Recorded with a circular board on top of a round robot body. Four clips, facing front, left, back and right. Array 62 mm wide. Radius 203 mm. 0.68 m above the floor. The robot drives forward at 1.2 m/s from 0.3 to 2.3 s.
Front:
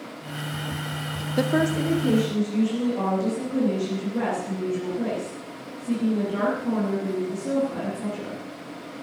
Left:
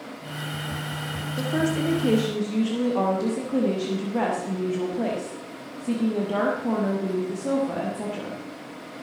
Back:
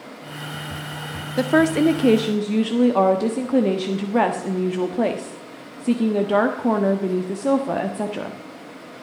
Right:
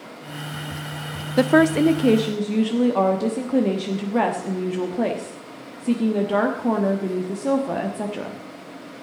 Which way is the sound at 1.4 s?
95° right.